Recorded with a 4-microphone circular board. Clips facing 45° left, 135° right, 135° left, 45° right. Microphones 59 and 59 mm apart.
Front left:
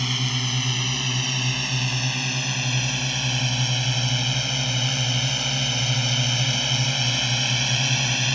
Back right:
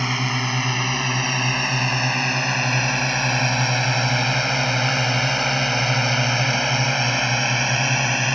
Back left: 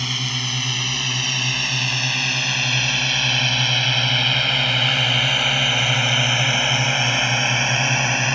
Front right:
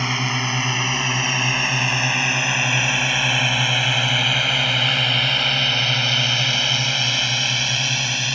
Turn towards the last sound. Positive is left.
turn(degrees=180)